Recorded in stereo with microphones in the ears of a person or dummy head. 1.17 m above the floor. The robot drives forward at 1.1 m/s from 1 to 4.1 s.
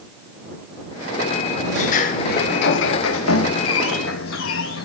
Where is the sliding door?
45° left (ahead or behind), 2.5 m; by 4.9 s 55° left (ahead or behind), 2 m.